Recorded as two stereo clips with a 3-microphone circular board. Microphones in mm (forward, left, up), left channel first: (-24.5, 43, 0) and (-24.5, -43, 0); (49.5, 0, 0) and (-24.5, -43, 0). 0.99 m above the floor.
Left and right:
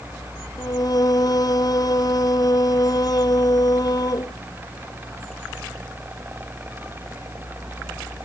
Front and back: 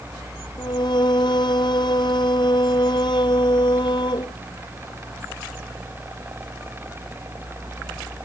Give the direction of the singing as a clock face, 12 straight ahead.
10 o'clock.